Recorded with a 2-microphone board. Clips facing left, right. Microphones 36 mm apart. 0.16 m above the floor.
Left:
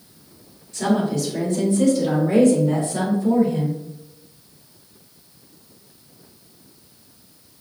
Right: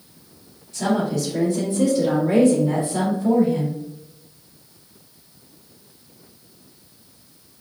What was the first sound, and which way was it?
A woman speaking, centre (ahead or behind).